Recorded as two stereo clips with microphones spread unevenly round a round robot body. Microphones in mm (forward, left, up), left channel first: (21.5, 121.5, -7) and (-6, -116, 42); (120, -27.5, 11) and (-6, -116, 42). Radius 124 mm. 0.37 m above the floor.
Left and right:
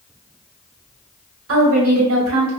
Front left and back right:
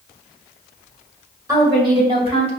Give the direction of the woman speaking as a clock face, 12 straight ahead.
2 o'clock.